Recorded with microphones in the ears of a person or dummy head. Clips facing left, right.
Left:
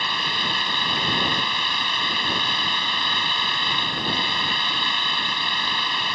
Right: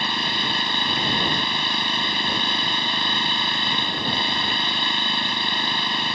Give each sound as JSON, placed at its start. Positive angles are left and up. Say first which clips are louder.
{"t": 0.0, "sound": "an engine running", "louder": "right 2 dB", "side_deg": -30}